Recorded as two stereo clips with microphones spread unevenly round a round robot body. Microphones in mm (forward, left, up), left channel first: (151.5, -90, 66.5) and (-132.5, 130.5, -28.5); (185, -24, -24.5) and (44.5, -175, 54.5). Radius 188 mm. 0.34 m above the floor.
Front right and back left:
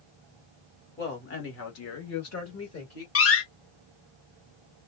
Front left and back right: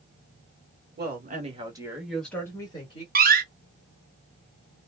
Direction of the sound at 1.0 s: 105° right.